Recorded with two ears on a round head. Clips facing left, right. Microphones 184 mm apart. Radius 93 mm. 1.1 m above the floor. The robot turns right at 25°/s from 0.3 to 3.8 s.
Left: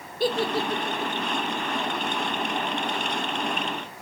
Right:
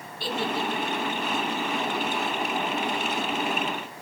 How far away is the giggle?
About 0.9 m.